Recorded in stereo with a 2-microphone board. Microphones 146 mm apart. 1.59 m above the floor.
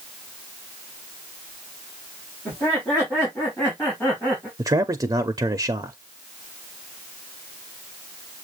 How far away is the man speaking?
About 0.5 m.